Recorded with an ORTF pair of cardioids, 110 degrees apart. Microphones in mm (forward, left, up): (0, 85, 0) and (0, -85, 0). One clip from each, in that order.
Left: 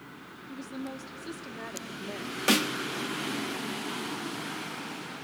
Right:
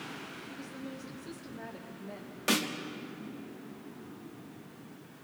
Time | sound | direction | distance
0.5 | a woman speaking | 40° left | 2 m
2.5 | a snare drum | 25° left | 1.2 m